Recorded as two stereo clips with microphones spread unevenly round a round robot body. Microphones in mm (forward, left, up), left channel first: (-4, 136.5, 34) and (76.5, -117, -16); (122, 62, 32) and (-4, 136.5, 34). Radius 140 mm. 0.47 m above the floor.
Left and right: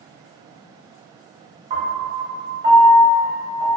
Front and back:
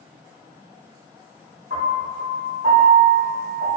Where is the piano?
145° right, 0.7 m.